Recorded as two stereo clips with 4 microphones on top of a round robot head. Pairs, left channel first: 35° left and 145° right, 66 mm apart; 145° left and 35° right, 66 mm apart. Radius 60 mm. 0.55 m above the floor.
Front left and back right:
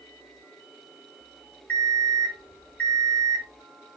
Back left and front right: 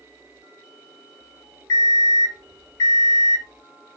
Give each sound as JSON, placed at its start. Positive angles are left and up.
{"t": 1.7, "sound": "an alarm clock", "azimuth_deg": 110, "distance_m": 1.8}